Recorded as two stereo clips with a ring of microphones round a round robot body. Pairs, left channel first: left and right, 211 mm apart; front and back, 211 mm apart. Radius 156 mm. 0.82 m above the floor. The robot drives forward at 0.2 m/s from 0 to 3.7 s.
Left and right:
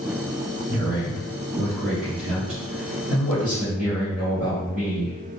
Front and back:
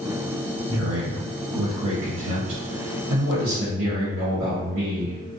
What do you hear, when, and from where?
0.7 s a man speaking: 170° right, 0.8 m; by 5.2 s 175° right, 1.3 m